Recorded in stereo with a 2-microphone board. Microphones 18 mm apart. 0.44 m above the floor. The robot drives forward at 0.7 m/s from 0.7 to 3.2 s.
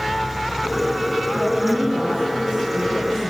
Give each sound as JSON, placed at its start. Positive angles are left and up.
{"t": 1.3, "sound": "a woman speaking", "side_deg": -65, "distance_m": 4.0}